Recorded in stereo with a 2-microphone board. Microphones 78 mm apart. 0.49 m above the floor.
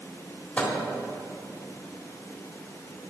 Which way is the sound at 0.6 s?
20° left (ahead or behind).